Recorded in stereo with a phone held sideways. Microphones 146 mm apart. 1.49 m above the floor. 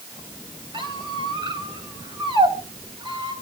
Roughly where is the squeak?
Right.